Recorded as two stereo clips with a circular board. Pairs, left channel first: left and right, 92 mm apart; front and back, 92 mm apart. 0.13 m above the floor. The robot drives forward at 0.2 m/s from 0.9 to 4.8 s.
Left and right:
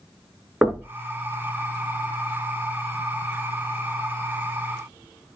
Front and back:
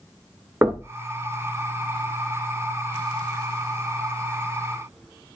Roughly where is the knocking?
Behind right.